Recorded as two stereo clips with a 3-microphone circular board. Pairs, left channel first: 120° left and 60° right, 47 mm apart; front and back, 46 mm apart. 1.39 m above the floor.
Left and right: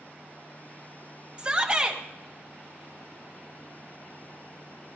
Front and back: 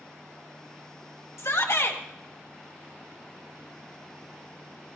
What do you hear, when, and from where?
1.4 s a shout: 10° left, 1.8 m